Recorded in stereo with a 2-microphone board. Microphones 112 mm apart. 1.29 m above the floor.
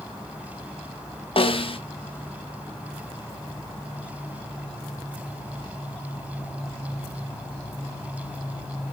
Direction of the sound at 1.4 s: 60° left (ahead or behind).